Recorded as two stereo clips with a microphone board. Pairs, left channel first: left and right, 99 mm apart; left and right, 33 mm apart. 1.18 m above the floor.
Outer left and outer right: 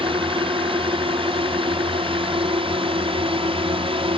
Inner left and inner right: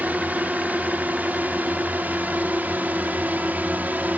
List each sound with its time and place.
0.0 s a drone: 65° right (ahead or behind); by 4.2 s 70° right (ahead or behind)